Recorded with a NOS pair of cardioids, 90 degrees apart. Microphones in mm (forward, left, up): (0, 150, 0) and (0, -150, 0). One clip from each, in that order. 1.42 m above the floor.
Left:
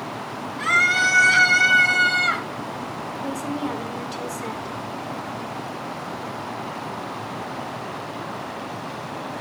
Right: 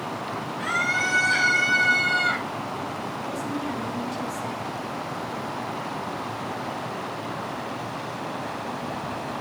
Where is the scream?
60° left, 3.5 m; by 2.5 s 40° left, 1.8 m.